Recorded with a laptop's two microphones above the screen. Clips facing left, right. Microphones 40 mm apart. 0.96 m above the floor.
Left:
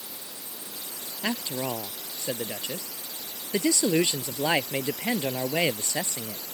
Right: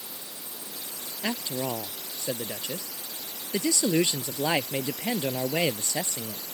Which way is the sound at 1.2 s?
25° left (ahead or behind).